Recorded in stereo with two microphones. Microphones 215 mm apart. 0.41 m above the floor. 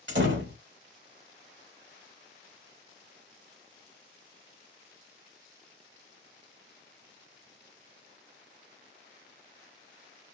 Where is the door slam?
65° right (ahead or behind), 1.2 m.